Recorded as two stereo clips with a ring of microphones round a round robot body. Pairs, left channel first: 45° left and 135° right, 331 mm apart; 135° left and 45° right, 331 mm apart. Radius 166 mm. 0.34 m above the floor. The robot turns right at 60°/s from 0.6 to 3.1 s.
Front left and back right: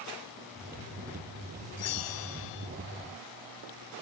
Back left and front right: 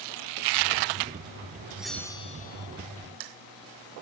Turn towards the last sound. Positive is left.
turn(degrees=120)